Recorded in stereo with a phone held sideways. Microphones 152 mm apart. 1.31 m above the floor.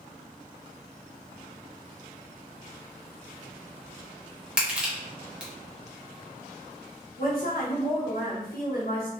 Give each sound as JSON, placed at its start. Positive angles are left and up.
{"t": 4.6, "sound": "crushing", "side_deg": -5, "distance_m": 0.9}
{"t": 7.2, "sound": "a woman speaking", "side_deg": 70, "distance_m": 1.0}